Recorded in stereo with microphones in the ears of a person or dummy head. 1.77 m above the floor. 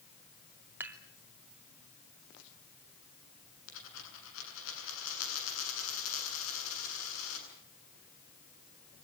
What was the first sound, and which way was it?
Dishes clattering, 15° right (ahead or behind).